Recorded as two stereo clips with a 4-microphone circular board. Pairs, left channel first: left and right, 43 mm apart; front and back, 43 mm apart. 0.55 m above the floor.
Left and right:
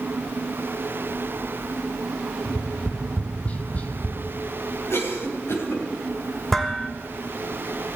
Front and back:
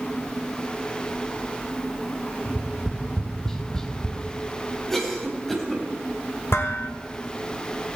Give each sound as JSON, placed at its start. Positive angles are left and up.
{"t": 2.5, "sound": "tapping", "azimuth_deg": 65, "distance_m": 1.2}
{"t": 4.9, "sound": "a cough", "azimuth_deg": 80, "distance_m": 4.0}
{"t": 6.5, "sound": "dishes clattering", "azimuth_deg": 5, "distance_m": 1.4}